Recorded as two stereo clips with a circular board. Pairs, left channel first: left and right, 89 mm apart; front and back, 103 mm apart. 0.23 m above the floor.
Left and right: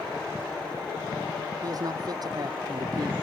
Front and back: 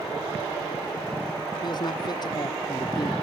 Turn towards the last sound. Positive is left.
turn(degrees=-45)